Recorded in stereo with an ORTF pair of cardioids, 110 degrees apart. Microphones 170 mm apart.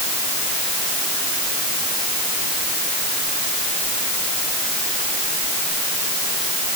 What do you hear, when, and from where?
Only background noise.